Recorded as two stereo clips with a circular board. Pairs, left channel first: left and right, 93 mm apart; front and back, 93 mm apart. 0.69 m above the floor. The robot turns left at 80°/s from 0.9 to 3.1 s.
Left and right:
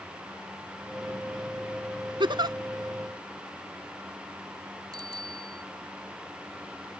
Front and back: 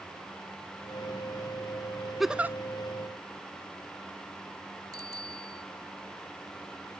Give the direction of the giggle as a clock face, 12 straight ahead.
3 o'clock.